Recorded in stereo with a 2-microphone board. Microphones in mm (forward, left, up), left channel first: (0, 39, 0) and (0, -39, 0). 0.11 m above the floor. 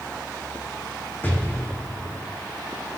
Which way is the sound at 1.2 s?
25° left (ahead or behind).